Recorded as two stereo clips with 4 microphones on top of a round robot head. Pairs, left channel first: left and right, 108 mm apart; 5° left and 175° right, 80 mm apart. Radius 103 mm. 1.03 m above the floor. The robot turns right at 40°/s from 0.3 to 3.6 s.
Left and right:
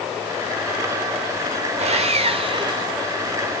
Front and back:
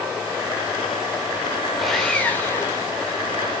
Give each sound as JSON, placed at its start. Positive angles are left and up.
{"t": 1.8, "sound": "sawing", "azimuth_deg": -85, "distance_m": 1.7}